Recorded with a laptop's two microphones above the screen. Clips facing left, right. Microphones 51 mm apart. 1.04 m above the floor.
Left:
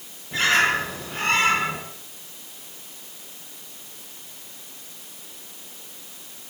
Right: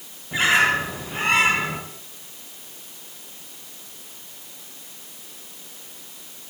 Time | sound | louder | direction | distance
0.3 | a bird | right 1 dB | 15° right (ahead or behind) | 8 m